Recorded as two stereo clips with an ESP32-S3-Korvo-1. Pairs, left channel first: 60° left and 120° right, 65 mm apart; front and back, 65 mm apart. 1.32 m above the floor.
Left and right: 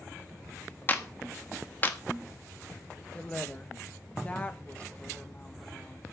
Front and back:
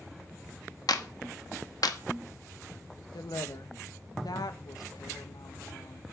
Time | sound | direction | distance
0.9 | a clap | straight ahead | 1.4 m
3.1 | a woman speaking | 10° right | 1.3 m